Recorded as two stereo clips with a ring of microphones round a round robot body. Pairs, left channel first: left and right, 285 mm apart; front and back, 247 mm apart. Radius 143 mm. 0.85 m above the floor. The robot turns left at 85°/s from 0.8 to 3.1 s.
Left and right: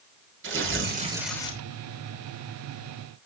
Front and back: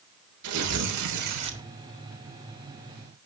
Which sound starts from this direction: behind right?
Tearing paper, at 0.4 s.